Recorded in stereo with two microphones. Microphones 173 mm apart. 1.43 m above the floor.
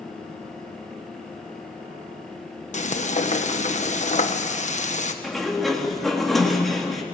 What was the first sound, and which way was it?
Frying, 45° left (ahead or behind).